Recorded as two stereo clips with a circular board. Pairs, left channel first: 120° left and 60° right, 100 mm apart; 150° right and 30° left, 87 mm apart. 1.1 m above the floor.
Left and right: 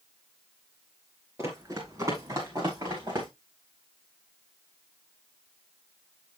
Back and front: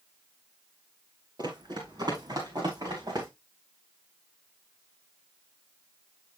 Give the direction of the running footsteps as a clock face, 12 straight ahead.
12 o'clock.